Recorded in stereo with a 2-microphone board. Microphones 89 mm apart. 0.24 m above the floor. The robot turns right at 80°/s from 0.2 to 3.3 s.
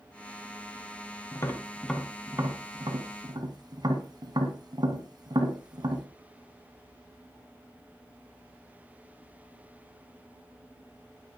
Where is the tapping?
40° left (ahead or behind), 1.8 m; by 6.1 s 50° right (ahead or behind), 1.8 m.